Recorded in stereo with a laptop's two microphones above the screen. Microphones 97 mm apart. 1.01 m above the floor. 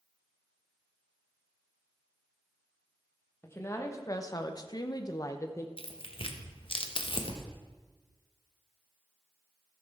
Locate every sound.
3.4 s a woman speaking: 25° left (ahead or behind), 1.5 m
5.8 s tearing paper: 60° left (ahead or behind), 1.0 m